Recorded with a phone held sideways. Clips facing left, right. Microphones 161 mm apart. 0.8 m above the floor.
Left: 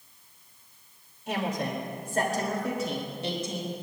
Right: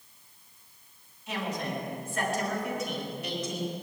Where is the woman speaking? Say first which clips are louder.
Left 3 dB; 55° left (ahead or behind), 3 m; by 3.7 s 25° left (ahead or behind), 4 m.